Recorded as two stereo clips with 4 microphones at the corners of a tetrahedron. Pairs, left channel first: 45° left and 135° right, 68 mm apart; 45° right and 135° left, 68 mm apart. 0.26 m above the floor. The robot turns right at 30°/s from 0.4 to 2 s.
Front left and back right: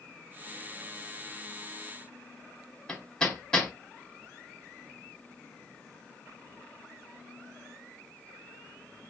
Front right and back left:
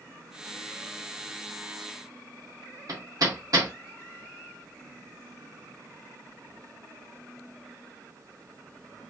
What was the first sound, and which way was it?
Hammering, 120° left.